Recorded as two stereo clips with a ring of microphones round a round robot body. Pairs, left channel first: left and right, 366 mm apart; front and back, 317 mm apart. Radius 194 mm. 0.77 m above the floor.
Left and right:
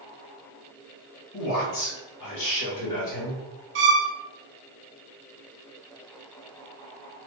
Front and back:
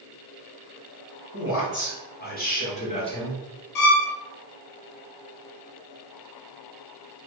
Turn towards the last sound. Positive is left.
turn(degrees=-30)